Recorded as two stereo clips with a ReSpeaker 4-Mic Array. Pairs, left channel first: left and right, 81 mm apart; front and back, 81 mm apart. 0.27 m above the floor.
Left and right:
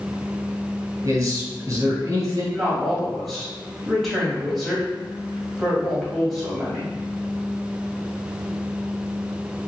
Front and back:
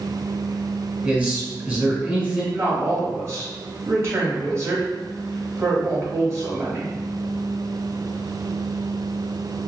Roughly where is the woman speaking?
Behind.